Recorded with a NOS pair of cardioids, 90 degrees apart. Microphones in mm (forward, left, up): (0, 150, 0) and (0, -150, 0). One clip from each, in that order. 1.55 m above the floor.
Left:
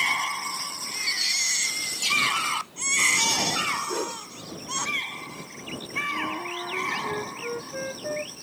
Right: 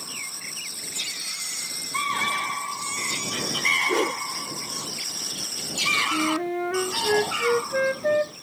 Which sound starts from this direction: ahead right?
A whoosh, at 3.9 s.